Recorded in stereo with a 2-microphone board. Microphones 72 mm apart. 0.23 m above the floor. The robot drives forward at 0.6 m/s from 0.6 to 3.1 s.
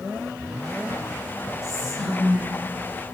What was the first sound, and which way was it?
Whispering, centre (ahead or behind).